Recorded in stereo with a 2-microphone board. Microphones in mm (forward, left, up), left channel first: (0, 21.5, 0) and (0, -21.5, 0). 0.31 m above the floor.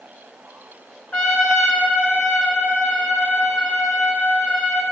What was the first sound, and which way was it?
A trumpet, 30° left (ahead or behind).